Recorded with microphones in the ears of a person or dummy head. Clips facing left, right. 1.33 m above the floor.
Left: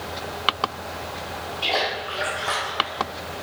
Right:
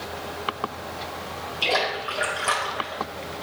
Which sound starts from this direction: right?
A splash, at 1.6 s.